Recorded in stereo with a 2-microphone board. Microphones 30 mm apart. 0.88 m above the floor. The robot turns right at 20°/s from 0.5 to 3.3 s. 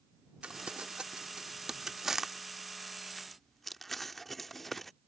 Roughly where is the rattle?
I don't hear a rattle.